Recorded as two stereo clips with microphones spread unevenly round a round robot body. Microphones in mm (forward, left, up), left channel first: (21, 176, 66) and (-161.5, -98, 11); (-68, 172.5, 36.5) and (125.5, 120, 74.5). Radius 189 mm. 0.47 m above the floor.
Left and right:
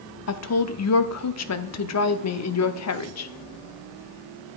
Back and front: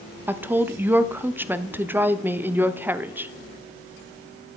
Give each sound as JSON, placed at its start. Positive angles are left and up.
{"t": 0.3, "sound": "a woman speaking", "azimuth_deg": 75, "distance_m": 0.9}